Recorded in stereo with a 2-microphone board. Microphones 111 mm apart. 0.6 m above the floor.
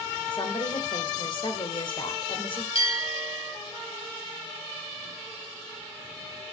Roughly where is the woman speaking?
Left.